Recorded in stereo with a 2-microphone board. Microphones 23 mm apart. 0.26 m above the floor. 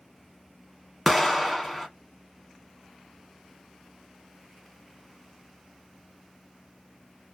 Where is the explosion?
Centre (ahead or behind), 0.7 m.